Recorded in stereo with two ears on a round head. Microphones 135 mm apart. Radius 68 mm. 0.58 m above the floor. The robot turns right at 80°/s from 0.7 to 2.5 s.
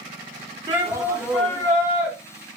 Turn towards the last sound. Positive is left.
turn(degrees=95)